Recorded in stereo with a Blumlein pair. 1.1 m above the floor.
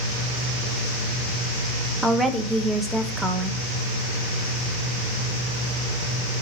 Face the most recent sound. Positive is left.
turn(degrees=-5)